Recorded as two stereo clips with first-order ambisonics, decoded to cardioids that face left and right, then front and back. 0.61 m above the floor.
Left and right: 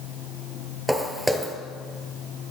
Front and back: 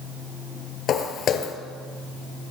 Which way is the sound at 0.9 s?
5° right.